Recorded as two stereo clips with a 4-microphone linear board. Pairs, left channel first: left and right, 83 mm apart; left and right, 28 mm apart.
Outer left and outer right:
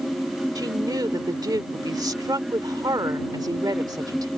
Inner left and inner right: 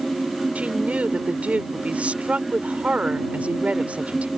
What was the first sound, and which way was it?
A woman speaking, 50° right (ahead or behind).